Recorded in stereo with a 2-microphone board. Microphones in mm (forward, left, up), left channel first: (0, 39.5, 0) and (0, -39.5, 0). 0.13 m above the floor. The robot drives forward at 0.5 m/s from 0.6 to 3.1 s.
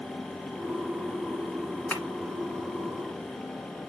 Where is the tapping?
20° left (ahead or behind), 1.6 m.